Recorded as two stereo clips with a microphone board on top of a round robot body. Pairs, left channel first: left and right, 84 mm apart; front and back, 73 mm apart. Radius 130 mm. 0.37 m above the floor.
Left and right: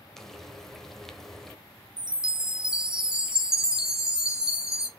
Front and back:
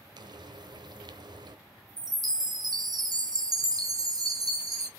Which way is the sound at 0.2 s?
175° left.